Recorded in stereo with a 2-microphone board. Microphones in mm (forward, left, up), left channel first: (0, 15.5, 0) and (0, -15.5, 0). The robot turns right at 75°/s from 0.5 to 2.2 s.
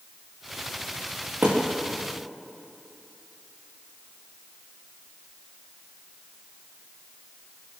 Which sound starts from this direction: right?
A thud, at 1.4 s.